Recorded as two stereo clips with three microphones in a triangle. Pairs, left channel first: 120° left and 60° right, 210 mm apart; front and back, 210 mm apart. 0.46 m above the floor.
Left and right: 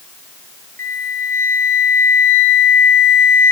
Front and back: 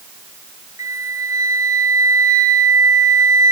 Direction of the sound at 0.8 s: 105° right.